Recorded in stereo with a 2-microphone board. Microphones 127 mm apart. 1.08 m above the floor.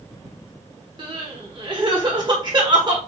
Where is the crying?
40° right (ahead or behind), 1.2 m.